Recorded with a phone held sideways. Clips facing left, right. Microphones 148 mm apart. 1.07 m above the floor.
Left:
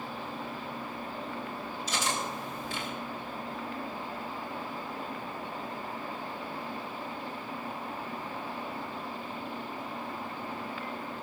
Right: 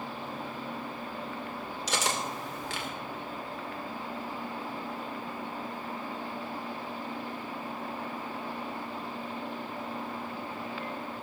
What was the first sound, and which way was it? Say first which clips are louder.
Cutlery clinking: right 1 dB; 85° right.